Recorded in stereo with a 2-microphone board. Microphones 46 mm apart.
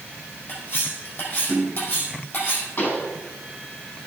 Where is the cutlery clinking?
40° left (ahead or behind), 4.5 m.